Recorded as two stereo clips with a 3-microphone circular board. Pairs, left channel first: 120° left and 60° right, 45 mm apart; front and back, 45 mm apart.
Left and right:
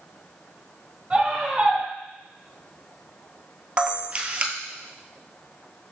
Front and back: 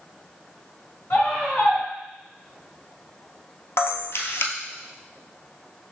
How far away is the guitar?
No guitar in this recording.